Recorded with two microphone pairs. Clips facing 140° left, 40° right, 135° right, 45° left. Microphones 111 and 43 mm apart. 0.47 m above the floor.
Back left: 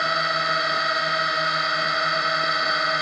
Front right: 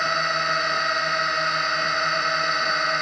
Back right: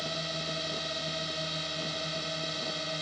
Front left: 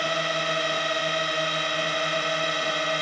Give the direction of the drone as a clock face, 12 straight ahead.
10 o'clock.